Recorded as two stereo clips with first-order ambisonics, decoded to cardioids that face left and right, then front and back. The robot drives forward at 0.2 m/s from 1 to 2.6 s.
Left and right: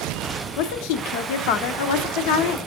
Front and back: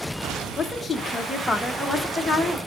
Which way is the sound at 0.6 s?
85° left.